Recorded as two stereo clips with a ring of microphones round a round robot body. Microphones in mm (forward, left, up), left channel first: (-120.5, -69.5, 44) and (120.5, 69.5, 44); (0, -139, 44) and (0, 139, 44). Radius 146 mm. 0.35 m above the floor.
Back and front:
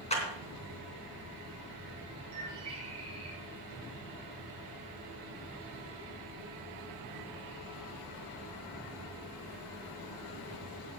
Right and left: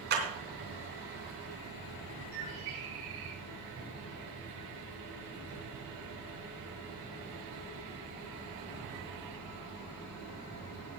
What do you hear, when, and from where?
0.1 s a clap: 145° left, 3.5 m
2.3 s a bird: 95° left, 7 m